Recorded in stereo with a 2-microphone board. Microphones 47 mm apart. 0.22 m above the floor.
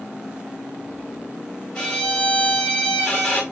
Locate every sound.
1.8 s a violin: 20° left (ahead or behind), 1.6 m